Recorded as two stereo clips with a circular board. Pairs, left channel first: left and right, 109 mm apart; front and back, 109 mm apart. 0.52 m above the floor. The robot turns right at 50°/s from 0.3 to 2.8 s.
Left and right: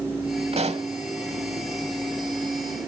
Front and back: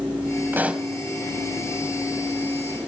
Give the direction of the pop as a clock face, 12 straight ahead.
4 o'clock.